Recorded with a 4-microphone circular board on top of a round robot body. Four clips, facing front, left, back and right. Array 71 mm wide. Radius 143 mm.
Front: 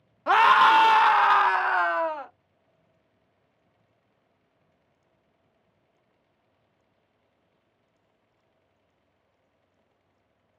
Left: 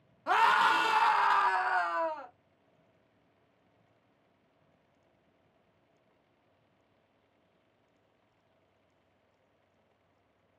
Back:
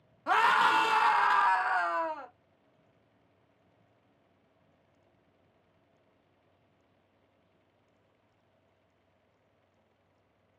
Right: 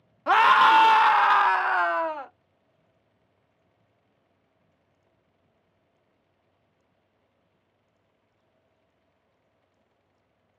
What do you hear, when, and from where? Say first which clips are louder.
0.3 s a scream: right 8 dB, front 8 dB; 50° right, 0.6 m